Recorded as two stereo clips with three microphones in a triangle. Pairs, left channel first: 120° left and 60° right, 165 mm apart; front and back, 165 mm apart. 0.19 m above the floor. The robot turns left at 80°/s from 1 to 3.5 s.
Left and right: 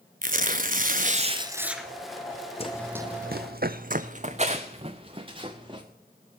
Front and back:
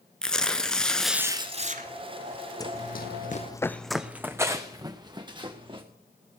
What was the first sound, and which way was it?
Tearing paper, 85° right.